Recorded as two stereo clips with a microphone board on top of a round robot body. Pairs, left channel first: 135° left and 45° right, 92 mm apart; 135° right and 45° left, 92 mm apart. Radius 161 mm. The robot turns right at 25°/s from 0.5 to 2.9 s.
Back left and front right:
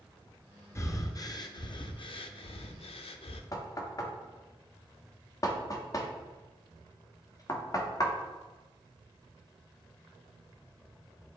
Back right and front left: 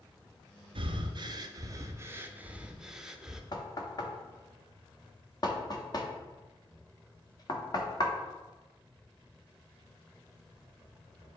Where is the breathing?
75° left, 0.6 m; by 3.4 s 130° left, 0.6 m.